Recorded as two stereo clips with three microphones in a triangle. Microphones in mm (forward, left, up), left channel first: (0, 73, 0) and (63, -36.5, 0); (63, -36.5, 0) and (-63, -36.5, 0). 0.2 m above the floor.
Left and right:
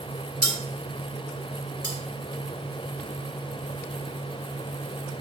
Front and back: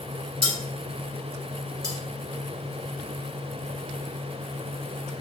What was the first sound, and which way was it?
Cutlery clinking, 140° right.